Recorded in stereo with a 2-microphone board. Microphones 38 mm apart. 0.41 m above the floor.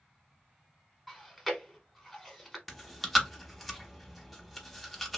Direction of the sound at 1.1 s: 5° right (ahead or behind).